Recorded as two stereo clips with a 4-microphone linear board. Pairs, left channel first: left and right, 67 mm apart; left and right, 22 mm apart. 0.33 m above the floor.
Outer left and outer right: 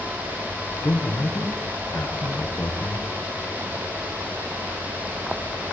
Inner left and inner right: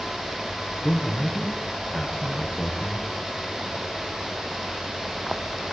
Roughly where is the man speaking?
Left.